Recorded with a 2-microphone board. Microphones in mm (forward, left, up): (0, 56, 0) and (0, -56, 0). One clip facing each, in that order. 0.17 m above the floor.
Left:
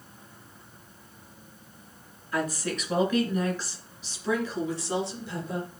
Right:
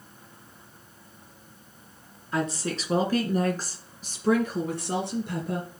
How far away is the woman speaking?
About 2.5 m.